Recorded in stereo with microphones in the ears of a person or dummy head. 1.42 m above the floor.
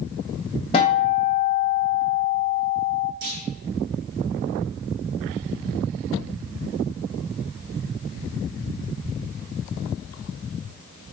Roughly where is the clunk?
Right.